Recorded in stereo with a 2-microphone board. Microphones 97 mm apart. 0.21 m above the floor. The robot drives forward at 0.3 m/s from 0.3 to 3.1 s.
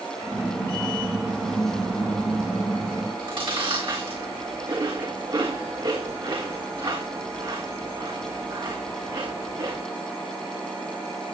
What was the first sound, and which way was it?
Chewing, 55° right (ahead or behind).